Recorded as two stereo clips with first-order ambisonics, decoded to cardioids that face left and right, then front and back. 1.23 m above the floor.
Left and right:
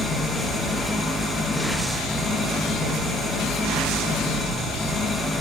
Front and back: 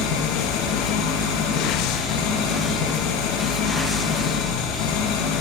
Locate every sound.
0.0 s an engine running: 15° left, 1.7 m